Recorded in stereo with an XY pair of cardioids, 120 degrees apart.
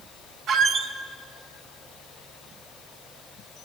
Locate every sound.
0.5 s a squeak: 60° right, 0.8 m